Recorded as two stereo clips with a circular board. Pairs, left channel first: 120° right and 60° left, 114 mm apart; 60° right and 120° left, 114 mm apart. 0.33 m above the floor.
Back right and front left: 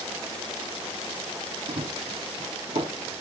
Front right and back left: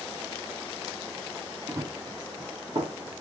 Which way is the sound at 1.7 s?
55° left.